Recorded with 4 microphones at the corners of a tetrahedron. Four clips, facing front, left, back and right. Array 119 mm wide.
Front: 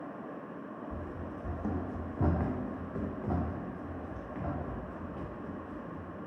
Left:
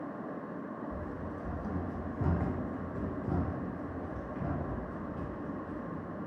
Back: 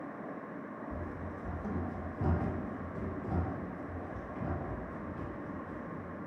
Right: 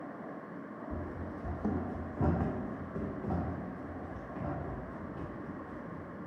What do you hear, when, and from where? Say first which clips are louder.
0.9 s running footsteps: left 1 dB, even; 95° right, 0.6 m; by 6.2 s 5° right, 2.5 m